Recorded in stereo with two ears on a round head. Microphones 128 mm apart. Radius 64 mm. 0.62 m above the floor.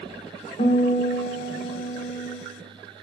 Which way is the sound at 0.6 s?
45° left (ahead or behind).